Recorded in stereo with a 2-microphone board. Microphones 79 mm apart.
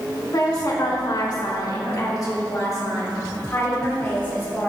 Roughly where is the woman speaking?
Left.